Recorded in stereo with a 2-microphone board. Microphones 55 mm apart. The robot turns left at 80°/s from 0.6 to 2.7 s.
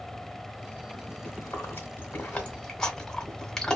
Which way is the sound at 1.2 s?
30° left (ahead or behind).